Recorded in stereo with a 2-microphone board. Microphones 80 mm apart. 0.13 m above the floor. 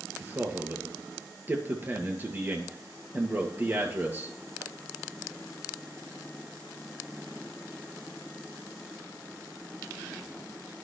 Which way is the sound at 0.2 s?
25° right (ahead or behind).